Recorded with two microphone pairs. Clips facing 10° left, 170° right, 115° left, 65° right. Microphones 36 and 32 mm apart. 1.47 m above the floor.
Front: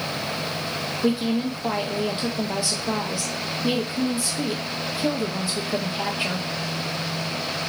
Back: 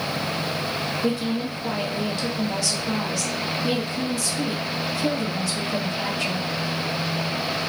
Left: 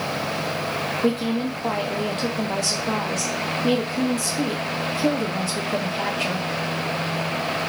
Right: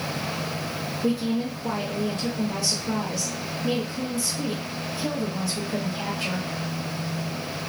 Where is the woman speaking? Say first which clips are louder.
Front 4 dB, left 1 dB; 85° left, 0.7 m.